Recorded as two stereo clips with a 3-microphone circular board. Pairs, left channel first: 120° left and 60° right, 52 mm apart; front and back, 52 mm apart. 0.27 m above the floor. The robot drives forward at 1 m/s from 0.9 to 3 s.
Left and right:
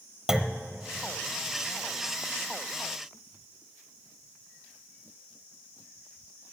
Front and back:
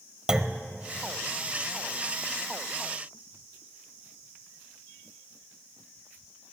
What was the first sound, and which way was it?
A clunk, 125° right.